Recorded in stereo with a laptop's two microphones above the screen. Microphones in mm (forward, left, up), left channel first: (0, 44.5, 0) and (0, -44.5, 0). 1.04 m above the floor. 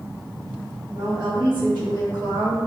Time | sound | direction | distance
0.9 | a woman speaking | 70° right (ahead or behind) | 1.7 m